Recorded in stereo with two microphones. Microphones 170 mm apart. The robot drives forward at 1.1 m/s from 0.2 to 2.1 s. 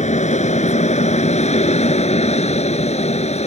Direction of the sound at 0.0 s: 45° left (ahead or behind).